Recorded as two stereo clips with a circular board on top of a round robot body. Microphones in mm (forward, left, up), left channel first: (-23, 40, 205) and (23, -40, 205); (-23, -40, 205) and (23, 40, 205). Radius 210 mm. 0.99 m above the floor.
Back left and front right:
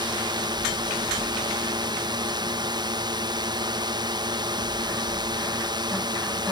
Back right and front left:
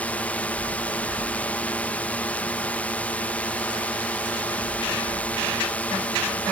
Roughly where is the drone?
Ahead right.